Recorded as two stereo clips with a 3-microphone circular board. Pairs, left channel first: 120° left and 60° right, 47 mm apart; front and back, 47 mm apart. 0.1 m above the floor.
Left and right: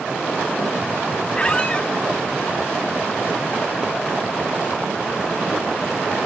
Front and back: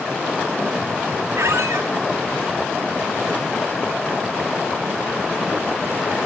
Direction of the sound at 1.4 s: 175° right.